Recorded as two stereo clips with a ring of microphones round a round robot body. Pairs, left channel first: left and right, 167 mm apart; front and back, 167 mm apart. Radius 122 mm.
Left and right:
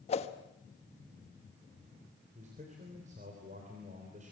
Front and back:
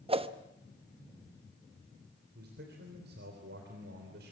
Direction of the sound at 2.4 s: 145° right.